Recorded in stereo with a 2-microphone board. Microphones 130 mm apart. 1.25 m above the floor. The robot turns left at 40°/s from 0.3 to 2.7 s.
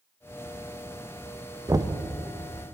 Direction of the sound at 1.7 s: 25° right (ahead or behind).